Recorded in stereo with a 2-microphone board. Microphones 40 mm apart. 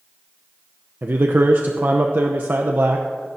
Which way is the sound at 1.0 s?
55° right (ahead or behind).